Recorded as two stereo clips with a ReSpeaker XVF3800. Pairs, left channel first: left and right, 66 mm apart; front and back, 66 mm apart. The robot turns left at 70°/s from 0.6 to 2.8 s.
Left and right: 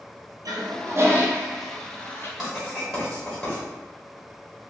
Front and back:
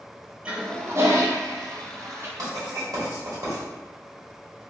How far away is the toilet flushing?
About 0.6 m.